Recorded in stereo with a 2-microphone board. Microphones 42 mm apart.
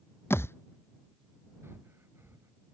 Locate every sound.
0.3 s a thud: 75° left (ahead or behind)
1.6 s breathing: 75° right (ahead or behind)